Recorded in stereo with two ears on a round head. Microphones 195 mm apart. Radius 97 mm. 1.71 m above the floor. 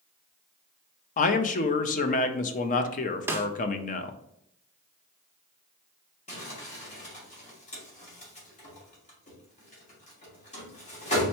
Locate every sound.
1.2 s a man speaking: 35° left (ahead or behind), 0.5 m
3.3 s a snare drum: 10° right (ahead or behind), 0.5 m
6.3 s crumpling: 35° left (ahead or behind), 1.9 m